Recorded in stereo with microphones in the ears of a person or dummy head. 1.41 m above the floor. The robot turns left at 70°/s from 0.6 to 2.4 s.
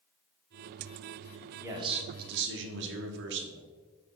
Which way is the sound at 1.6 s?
15° right.